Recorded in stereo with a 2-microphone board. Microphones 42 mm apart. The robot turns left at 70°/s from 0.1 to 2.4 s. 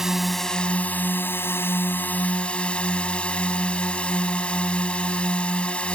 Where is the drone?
170° right; by 6.0 s 30° left.